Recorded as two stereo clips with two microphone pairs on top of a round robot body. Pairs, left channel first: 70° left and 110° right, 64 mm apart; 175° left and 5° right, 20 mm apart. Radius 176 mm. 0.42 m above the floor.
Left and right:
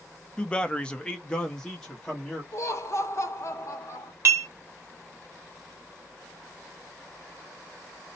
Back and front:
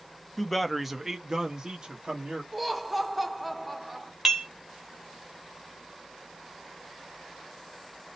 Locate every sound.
0.4 s a man speaking: 145° left, 0.8 m; by 2.4 s 15° right, 1.2 m
2.5 s laughter: 80° left, 1.1 m
4.2 s dishes clattering: 75° right, 1.1 m